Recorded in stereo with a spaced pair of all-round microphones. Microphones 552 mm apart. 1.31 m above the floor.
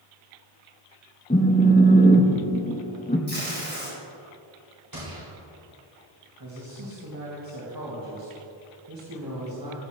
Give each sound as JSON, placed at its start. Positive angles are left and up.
{"t": 1.3, "sound": "a phone buzzing", "side_deg": 15, "distance_m": 0.7}
{"t": 3.3, "sound": "tape being pulled", "side_deg": -20, "distance_m": 3.5}
{"t": 4.9, "sound": "a gunshot", "side_deg": -35, "distance_m": 2.5}
{"t": 6.4, "sound": "a man speaking", "side_deg": -40, "distance_m": 1.3}